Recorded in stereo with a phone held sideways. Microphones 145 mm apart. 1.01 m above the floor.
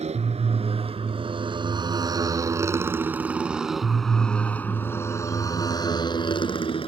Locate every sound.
0.0 s a motorcycle: 50° right (ahead or behind); by 6.9 s 40° left (ahead or behind)